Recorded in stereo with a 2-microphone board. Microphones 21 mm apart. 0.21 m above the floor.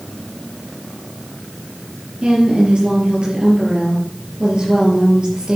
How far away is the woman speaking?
About 4.5 m.